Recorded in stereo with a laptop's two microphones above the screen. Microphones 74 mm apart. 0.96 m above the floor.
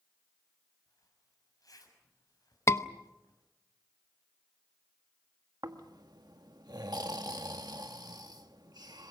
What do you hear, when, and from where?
0.9 s a zipper: 55° left (ahead or behind), 6.5 m
2.7 s a scream: 40° left (ahead or behind), 0.9 m
5.6 s snoring: 65° right (ahead or behind), 1.6 m